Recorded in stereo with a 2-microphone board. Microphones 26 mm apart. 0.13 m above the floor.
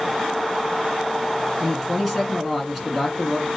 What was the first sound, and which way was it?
A man speaking, centre (ahead or behind).